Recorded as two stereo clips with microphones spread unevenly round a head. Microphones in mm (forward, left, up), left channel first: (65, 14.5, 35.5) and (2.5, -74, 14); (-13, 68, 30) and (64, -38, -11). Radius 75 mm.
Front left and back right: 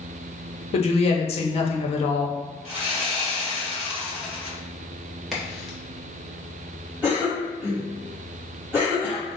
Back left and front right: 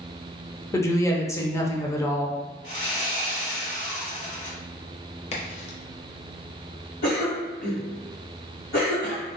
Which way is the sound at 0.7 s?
45° left.